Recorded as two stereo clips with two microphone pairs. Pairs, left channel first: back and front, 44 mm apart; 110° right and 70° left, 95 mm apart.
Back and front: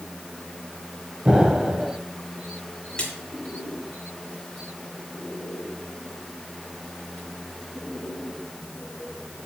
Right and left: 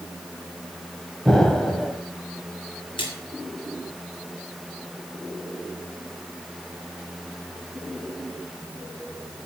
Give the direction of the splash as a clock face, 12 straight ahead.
4 o'clock.